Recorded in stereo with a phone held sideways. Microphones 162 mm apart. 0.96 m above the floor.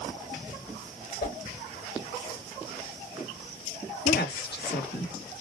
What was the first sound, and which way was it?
A whoosh, 55° left (ahead or behind).